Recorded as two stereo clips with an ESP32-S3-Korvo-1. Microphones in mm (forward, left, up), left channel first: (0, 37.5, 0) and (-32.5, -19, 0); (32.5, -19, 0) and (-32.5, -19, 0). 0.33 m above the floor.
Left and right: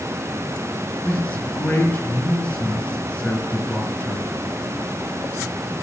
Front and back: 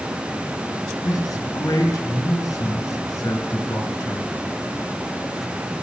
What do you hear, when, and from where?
1.0 s a man speaking: 5° right, 3 m